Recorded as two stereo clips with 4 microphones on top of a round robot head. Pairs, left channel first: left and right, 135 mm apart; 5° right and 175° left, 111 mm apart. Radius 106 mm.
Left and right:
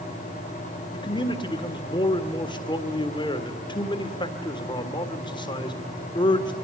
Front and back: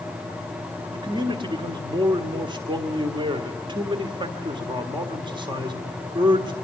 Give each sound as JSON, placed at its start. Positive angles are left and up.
{"t": 0.9, "sound": "a man speaking", "azimuth_deg": 140, "distance_m": 1.8}